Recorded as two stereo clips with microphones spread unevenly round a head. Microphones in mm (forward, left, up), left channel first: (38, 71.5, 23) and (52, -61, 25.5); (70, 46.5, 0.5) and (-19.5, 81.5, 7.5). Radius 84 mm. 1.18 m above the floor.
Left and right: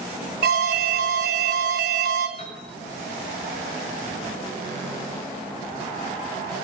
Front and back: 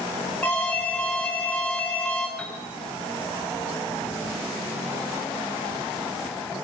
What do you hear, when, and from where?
0.4 s an alarm: 105° right, 3 m
2.4 s a piano: 55° left, 9.5 m